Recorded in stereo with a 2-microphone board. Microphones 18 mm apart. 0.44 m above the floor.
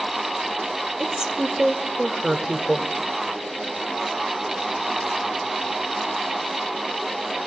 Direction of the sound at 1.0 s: 30° right (ahead or behind).